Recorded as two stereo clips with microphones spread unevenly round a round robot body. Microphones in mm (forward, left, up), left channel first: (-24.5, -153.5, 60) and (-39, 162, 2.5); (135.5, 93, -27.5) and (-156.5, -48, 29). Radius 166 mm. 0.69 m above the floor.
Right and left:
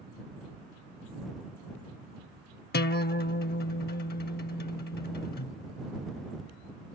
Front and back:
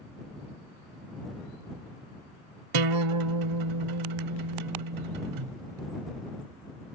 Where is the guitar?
140° right.